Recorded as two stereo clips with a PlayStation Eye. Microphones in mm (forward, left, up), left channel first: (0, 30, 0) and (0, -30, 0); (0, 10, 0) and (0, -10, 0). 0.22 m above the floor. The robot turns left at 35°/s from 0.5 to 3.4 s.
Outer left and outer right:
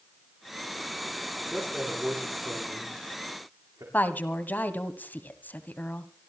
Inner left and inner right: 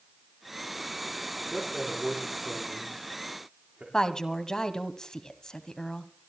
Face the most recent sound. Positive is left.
turn(degrees=35)  # may be behind; listen again after turning